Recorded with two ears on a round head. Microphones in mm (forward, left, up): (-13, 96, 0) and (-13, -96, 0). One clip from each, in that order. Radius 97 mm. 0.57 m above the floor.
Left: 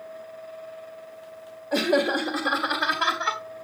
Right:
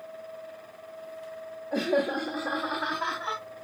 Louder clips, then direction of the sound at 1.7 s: Left 4 dB; 70° left (ahead or behind).